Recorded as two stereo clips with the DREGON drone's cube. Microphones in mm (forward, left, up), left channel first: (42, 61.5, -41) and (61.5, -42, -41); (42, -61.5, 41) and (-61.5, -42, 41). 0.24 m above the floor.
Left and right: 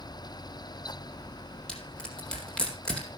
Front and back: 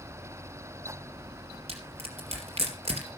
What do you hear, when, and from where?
1.7 s crushing: straight behind, 3.5 m